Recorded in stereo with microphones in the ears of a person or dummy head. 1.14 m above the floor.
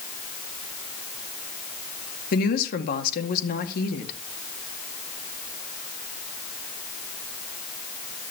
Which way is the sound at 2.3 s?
60° left (ahead or behind).